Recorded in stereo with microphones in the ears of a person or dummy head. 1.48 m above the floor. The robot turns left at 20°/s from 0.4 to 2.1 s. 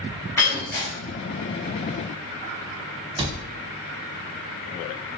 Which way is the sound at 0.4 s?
10° left (ahead or behind).